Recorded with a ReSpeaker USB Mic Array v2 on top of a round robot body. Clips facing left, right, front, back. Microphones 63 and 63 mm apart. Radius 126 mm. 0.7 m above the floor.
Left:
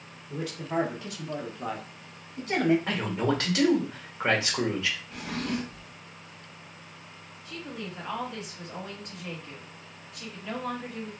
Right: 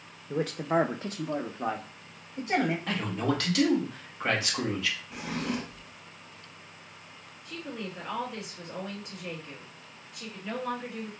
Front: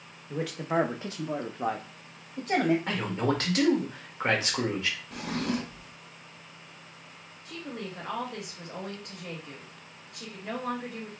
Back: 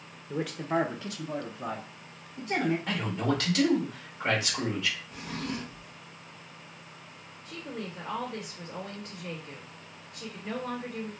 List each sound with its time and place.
0.3 s a man speaking: 105° right, 0.6 m; by 2.8 s 15° right, 1.3 m
2.9 s a man speaking: 35° left, 1.5 m
5.1 s a drawer: 10° right, 0.6 m
7.5 s a woman speaking: straight ahead, 2 m